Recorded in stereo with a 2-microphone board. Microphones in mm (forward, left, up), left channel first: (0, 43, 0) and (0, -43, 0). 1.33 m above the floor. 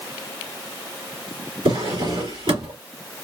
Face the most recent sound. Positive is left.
turn(degrees=-80)